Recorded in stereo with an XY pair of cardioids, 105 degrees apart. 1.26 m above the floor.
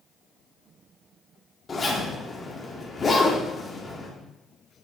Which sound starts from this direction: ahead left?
A zipper, at 1.7 s.